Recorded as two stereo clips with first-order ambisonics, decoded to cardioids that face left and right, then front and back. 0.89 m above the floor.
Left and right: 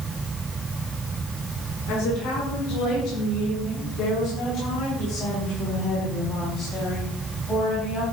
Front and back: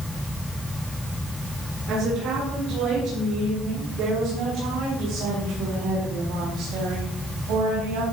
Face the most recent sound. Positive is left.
turn(degrees=165)